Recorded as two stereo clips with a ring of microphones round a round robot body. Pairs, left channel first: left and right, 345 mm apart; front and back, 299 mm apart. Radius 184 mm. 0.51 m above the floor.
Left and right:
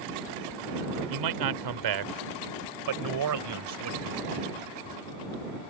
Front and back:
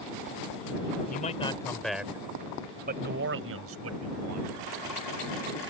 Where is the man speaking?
65° right; by 4.5 s 140° right.